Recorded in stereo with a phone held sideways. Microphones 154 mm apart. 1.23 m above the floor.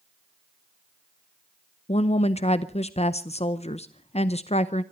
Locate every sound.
1.9 s a woman speaking: 45° left (ahead or behind), 0.7 m